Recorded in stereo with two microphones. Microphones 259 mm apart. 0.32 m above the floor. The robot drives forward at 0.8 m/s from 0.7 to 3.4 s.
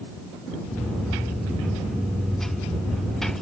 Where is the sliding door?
No sliding door in this recording.